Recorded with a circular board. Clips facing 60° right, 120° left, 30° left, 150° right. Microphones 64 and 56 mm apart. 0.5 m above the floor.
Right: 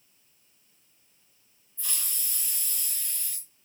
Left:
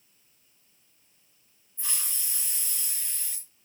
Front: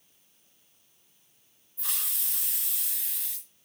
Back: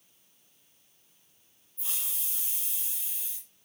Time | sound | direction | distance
1.8 | a hiss | 50° left | 2.5 m